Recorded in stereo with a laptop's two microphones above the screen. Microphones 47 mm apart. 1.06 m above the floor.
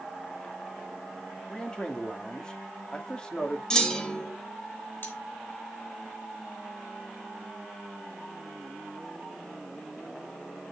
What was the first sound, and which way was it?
A man speaking, 15° left (ahead or behind).